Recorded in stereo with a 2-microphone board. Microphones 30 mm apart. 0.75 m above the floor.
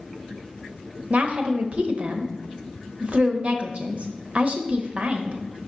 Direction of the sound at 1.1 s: 40° right (ahead or behind).